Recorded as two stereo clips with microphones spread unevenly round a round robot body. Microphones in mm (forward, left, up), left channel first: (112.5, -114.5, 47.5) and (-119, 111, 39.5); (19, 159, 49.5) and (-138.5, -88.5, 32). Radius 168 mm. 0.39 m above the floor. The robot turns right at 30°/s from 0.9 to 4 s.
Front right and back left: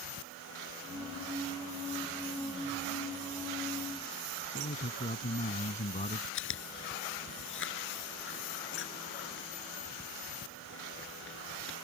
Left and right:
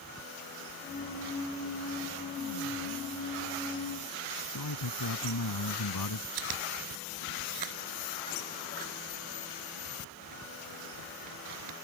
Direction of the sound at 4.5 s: 25° left.